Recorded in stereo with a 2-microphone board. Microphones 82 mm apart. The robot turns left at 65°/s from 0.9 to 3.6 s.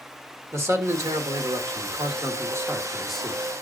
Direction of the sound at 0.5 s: 35° right.